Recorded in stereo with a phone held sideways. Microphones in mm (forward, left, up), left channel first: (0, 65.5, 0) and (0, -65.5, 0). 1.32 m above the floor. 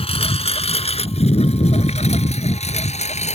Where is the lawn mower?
50° left (ahead or behind); by 3.4 s 60° left (ahead or behind).